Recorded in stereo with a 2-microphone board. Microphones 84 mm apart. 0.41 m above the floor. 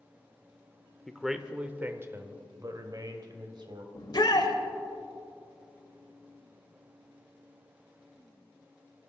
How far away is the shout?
About 1.5 m.